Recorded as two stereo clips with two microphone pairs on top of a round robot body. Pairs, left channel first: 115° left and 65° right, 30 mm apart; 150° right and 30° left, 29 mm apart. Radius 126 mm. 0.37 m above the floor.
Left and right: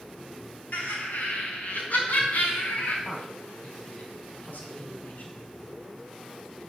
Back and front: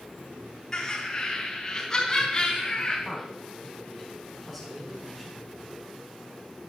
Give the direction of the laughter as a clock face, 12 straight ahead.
8 o'clock.